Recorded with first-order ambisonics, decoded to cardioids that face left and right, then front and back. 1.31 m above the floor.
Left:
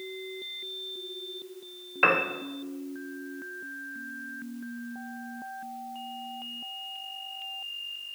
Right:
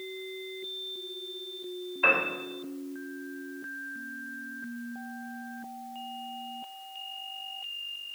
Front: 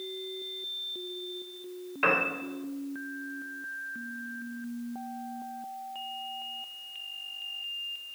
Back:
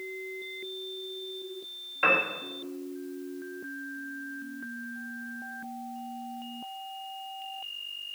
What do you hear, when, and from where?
2.0 s a piano: 90° left, 0.7 m